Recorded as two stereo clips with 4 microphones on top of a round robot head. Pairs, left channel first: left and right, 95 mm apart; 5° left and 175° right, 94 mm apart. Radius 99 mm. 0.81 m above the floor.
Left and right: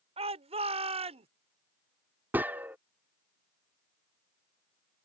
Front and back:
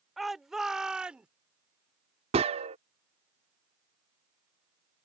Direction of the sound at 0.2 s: 85° right.